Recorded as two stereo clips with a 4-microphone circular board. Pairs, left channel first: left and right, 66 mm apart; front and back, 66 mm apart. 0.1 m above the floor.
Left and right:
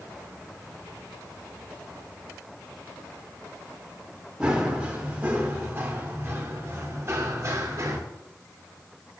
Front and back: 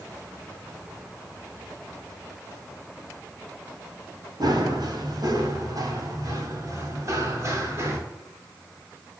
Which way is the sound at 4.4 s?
165° right.